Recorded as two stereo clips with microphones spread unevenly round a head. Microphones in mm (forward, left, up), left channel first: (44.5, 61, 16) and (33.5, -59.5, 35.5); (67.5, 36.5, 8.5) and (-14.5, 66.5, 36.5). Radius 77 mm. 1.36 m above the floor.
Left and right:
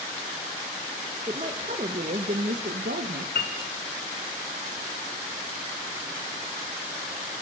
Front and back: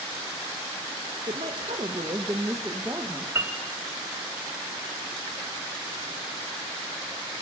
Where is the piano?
110° left, 3 m.